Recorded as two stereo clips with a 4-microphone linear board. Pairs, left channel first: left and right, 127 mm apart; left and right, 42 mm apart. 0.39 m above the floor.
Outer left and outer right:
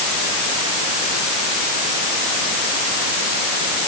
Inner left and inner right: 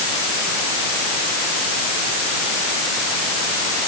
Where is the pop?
No pop in this recording.